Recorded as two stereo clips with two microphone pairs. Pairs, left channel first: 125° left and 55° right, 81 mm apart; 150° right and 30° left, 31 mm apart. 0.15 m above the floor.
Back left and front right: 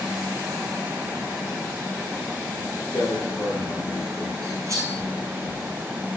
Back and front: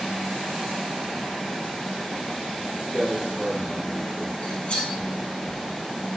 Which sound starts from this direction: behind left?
A man speaking, at 2.9 s.